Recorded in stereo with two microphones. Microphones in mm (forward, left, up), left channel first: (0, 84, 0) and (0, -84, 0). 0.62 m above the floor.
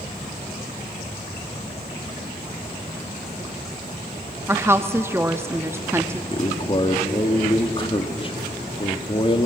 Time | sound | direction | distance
4.5 | a woman speaking | 15° right (ahead or behind) | 0.6 m
6.3 | a man speaking | 30° left (ahead or behind) | 1.1 m